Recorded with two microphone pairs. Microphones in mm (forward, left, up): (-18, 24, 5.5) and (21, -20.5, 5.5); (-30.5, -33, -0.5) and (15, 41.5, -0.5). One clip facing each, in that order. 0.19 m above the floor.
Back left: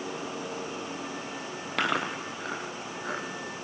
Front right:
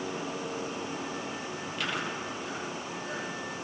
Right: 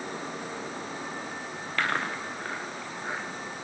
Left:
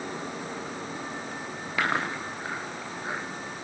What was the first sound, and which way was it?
Chewing, 140° left.